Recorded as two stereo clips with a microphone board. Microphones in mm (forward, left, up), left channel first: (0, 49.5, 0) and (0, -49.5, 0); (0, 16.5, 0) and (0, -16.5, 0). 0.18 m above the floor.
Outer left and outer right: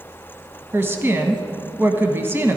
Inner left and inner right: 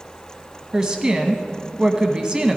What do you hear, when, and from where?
0.7 s a woman speaking: 25° right (ahead or behind), 1.0 m